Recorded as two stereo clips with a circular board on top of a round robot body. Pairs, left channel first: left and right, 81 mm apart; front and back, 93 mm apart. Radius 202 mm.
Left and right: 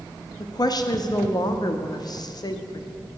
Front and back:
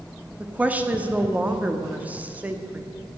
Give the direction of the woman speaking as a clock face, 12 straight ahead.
8 o'clock.